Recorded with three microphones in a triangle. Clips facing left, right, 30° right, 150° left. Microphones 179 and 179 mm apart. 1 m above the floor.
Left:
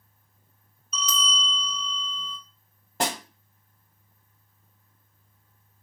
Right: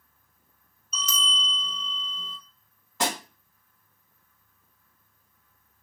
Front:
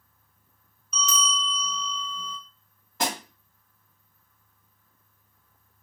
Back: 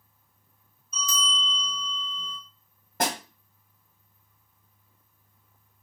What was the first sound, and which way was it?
A bell, 45° right.